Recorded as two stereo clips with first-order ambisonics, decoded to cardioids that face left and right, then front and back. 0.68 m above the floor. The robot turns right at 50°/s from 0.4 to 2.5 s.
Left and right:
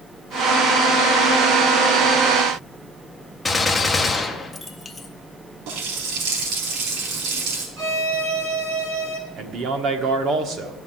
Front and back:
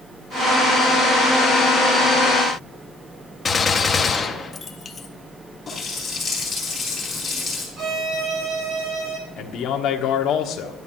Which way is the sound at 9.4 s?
40° right.